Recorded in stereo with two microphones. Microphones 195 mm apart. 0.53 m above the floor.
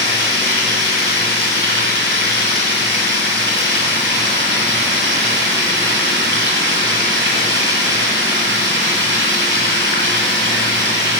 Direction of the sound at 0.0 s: 80° right.